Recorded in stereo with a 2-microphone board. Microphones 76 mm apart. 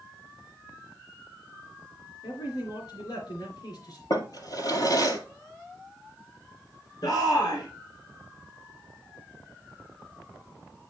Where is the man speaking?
65° left (ahead or behind), 2.5 m.